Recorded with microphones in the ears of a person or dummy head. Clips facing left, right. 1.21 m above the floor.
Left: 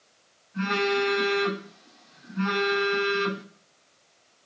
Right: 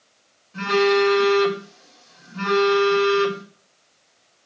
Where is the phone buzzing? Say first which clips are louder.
Right 8 dB; 85° right, 3 m.